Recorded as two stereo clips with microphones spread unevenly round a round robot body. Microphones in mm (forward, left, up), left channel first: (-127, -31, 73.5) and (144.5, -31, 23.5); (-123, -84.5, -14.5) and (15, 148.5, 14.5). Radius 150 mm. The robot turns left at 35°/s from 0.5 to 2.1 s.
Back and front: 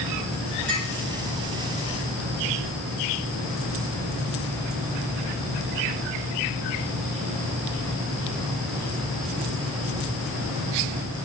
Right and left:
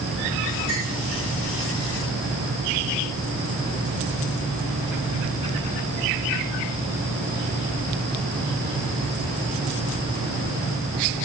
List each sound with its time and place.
0.7 s a clink: 50° right, 6 m; by 0.9 s 55° right, 6 m